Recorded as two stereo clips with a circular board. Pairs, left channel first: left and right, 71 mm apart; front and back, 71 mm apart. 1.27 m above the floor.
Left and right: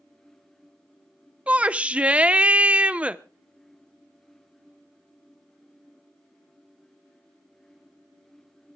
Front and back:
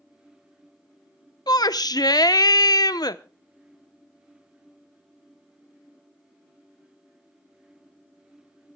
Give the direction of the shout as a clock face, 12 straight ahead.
1 o'clock.